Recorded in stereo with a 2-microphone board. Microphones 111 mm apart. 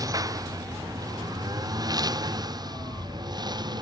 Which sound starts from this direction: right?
A lawn mower, at 0.0 s.